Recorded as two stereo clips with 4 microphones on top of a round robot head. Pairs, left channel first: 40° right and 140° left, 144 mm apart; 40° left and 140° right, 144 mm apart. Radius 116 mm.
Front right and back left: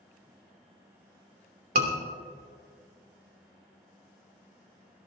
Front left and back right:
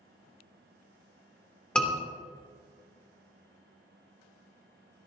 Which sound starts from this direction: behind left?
A scream, at 1.8 s.